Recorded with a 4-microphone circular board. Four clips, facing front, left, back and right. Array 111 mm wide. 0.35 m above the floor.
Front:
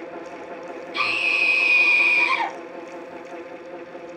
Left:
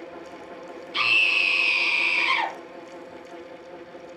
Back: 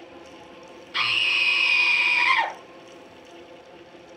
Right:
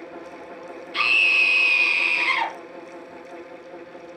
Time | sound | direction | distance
0.9 | a scream | 160° right | 6 m